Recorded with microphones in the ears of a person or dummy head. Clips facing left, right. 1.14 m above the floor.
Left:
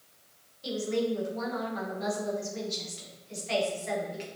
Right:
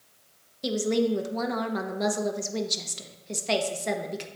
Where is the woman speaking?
65° right (ahead or behind), 1.2 m.